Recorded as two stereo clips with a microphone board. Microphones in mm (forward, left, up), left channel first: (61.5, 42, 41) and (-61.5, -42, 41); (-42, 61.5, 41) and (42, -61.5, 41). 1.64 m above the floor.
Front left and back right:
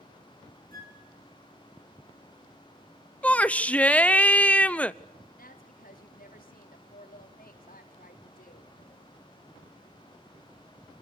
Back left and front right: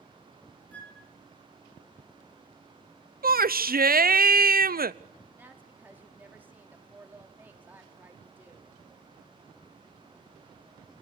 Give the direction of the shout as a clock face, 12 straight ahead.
2 o'clock.